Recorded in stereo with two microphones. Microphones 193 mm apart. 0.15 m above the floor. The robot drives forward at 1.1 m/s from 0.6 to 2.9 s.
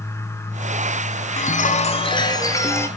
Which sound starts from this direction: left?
A chime, at 1.4 s.